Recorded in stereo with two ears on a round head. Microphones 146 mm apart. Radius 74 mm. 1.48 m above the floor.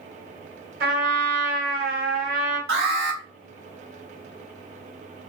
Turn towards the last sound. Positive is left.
turn(degrees=-65)  # may be behind; listen again after turning